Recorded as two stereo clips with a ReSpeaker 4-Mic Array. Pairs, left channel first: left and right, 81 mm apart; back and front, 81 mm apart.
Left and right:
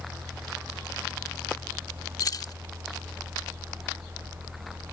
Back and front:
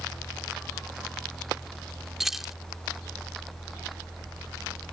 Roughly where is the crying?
I don't hear crying.